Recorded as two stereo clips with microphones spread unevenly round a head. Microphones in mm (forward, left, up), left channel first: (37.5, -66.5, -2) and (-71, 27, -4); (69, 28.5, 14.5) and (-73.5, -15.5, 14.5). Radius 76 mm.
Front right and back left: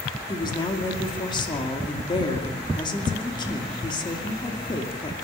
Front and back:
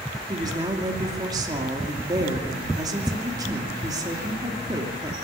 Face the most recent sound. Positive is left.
turn(degrees=-100)